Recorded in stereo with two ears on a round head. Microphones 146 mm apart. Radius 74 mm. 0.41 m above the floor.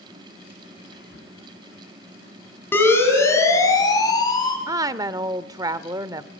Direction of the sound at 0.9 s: 70° left (ahead or behind).